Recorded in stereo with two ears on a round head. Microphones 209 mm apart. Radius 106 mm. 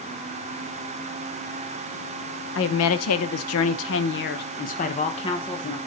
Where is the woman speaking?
55° left (ahead or behind), 0.9 m; by 5.8 s 20° left (ahead or behind), 1.4 m.